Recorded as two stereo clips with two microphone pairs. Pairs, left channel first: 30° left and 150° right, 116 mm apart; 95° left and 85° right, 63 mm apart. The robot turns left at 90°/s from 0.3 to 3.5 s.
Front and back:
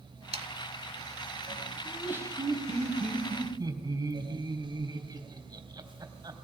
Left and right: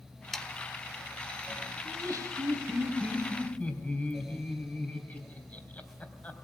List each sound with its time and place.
0.3 s sawing: straight behind, 0.9 m; by 0.5 s 170° left, 0.9 m
1.9 s laughter: 50° right, 3.5 m; by 6.3 s 160° left, 3.5 m